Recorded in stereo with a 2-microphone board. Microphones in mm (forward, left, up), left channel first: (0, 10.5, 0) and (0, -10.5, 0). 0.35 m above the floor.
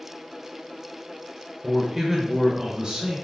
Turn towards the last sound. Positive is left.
turn(degrees=-35)  # may be behind; listen again after turning